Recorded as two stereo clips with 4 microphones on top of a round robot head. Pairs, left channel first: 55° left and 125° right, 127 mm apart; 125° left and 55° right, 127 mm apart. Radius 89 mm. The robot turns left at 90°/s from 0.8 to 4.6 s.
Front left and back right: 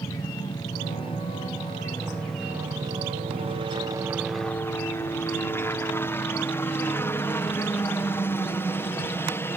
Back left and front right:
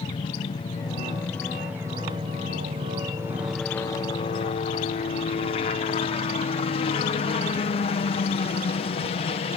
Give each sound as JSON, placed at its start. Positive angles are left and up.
{"t": 0.0, "sound": "a helicopter", "azimuth_deg": 100}